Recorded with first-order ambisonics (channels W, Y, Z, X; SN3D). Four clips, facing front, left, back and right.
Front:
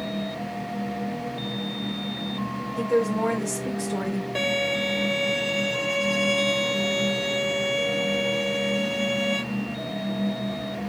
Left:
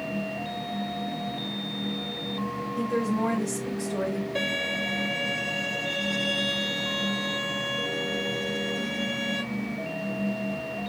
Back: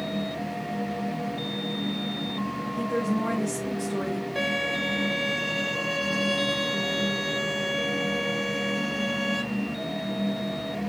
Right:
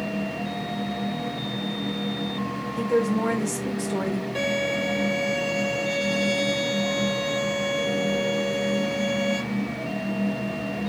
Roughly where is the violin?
Ahead.